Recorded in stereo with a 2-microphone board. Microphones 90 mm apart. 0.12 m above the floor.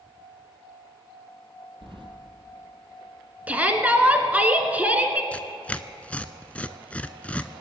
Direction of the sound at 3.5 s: 15° right (ahead or behind).